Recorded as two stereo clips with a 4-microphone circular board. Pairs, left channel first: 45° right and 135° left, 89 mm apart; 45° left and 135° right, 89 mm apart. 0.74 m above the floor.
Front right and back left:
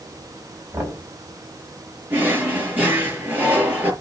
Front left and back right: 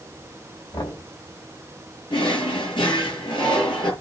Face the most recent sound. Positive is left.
turn(degrees=65)